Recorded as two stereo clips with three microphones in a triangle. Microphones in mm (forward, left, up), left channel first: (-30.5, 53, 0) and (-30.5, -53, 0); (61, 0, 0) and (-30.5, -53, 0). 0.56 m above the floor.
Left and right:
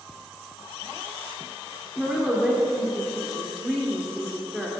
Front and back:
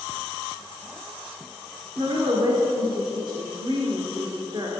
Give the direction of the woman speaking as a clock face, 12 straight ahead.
6 o'clock.